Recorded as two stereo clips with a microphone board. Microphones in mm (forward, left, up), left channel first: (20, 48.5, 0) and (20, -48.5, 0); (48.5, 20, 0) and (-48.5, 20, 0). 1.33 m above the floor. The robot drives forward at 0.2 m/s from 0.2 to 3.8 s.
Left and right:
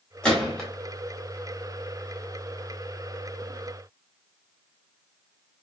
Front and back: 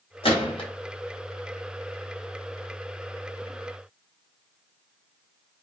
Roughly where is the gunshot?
Ahead.